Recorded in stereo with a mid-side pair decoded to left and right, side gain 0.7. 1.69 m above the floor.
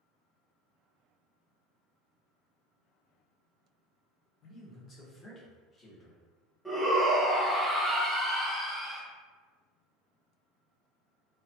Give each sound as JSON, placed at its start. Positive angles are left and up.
{"t": 4.4, "sound": "a man speaking", "azimuth_deg": 45, "distance_m": 1.0}
{"t": 6.7, "sound": "a shout", "azimuth_deg": -5, "distance_m": 0.9}